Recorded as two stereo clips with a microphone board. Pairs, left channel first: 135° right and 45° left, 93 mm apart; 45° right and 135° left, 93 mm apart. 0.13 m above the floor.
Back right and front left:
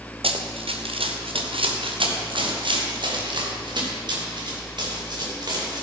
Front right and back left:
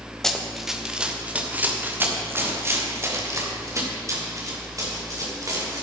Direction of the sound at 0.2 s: 40° left.